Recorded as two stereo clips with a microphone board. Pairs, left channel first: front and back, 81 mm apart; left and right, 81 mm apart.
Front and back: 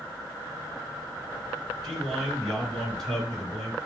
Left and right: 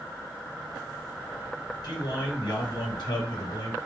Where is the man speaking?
85° left, 3.5 m.